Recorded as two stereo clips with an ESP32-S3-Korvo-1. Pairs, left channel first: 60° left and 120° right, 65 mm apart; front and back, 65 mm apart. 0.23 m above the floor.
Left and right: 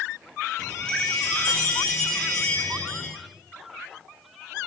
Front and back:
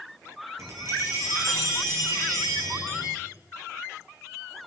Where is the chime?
135° left, 7 m.